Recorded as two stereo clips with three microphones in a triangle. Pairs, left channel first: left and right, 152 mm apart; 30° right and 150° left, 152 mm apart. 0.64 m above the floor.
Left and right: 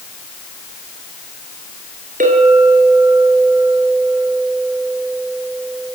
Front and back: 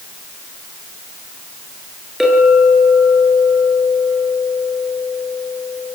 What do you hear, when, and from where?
2.2 s a clink: 120° right, 9 m